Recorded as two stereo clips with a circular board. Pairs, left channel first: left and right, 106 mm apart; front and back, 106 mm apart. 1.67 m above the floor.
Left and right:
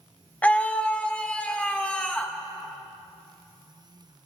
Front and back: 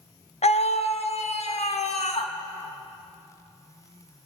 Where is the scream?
15° left, 1.1 m; by 2.3 s 10° left, 3 m.